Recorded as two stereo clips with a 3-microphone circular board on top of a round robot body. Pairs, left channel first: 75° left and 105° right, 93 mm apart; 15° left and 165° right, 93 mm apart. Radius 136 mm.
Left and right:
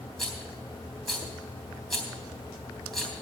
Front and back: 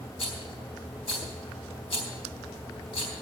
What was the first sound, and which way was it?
A rattle, 15° right.